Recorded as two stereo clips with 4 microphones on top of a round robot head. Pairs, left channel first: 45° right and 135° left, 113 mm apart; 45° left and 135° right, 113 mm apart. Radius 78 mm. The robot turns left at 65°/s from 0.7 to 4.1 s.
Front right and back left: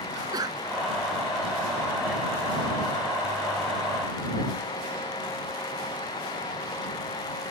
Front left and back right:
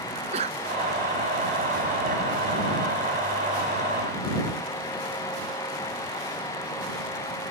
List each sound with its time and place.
0.1 s a sneeze: 170° right